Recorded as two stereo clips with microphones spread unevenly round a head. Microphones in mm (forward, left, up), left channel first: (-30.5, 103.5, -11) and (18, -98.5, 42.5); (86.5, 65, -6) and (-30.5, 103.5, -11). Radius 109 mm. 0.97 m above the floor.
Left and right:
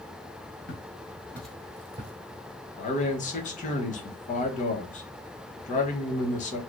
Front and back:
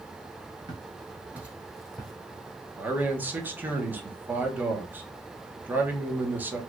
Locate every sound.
0.7 s footsteps: 130° left, 1.1 m; by 2.1 s 95° right, 1.3 m
2.8 s a man speaking: 95° left, 1.1 m